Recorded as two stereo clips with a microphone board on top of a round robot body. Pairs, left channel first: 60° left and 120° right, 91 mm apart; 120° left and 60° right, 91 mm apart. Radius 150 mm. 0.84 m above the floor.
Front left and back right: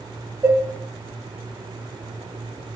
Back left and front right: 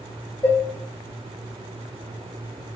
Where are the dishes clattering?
Straight behind, 3.5 m.